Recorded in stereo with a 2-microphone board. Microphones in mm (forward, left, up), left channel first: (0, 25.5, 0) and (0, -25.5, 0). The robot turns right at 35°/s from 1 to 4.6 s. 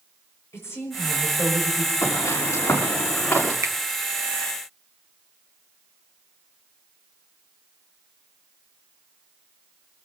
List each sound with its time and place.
0.5 s a woman speaking: 120° left, 6.5 m; by 1.9 s 155° left, 6.5 m
2.0 s footsteps: 75° left (ahead or behind), 6 m; by 3.5 s 25° left (ahead or behind), 7 m
3.6 s a finger snap: 75° right (ahead or behind), 1.0 m